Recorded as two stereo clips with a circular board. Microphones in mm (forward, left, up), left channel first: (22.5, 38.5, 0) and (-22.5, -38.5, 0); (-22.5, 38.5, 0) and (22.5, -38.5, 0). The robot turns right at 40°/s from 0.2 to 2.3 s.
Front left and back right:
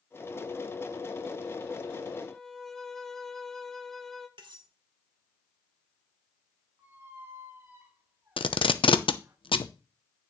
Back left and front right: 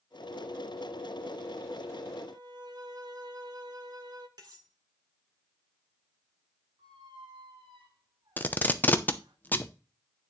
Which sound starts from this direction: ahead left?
Tape being pulled, at 8.4 s.